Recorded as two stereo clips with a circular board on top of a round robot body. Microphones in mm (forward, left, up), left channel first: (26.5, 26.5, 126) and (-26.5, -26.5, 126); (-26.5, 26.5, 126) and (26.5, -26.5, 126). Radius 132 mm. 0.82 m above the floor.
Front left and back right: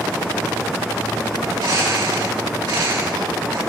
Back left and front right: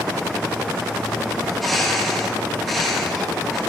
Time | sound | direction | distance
1.4 | a bird | 135° right | 4 m